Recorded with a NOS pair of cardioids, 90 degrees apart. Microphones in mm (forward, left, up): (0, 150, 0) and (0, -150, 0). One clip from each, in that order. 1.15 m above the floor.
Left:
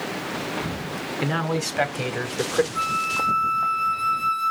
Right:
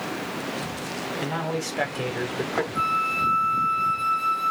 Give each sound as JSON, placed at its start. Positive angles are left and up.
{"t": 1.2, "sound": "a man speaking", "azimuth_deg": 35, "distance_m": 3.0}
{"t": 2.8, "sound": "a flute", "azimuth_deg": 15, "distance_m": 0.9}